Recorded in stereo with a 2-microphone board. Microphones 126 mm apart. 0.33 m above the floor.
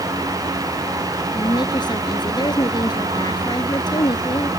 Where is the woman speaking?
35° left (ahead or behind).